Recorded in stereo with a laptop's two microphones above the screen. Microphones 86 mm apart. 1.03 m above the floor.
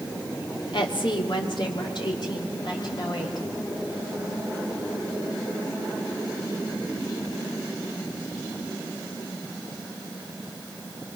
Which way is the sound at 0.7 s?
70° left (ahead or behind).